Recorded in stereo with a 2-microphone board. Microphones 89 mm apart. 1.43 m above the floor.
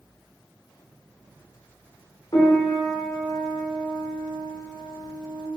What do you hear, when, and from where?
2.3 s a piano: 45° left (ahead or behind), 1.3 m